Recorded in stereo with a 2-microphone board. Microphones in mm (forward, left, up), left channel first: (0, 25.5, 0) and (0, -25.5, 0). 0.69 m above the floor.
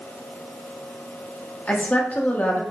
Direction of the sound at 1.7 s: 35° left (ahead or behind).